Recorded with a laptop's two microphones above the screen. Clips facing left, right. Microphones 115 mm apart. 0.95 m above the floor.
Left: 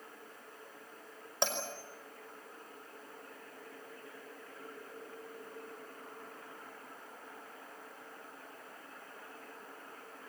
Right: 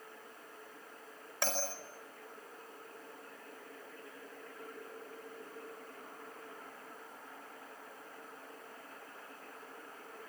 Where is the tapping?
No tapping in this recording.